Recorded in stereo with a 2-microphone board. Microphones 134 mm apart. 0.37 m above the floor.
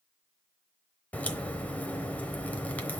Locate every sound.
1.1 s a crack: 10° left (ahead or behind), 0.8 m